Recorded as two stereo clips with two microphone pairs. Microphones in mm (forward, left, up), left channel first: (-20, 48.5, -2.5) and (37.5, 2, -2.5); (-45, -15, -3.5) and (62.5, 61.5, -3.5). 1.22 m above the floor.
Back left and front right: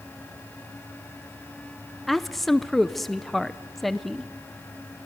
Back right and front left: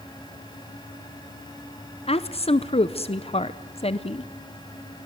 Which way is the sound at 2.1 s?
135° right.